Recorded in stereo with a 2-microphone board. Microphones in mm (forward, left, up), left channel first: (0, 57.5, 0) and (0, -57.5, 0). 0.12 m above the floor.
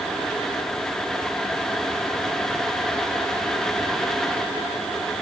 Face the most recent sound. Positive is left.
No sound to turn to.